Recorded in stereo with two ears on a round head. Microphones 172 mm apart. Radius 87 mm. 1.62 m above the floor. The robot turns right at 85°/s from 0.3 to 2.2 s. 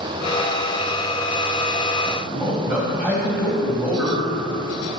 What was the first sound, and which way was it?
A man speaking, 5° left (ahead or behind).